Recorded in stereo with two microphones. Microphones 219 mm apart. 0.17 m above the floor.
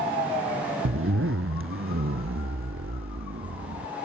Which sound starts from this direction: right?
A zipper, at 0.8 s.